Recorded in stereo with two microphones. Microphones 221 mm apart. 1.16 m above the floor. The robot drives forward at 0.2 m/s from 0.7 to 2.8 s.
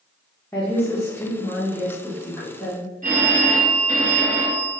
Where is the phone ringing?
35° right (ahead or behind), 0.9 m.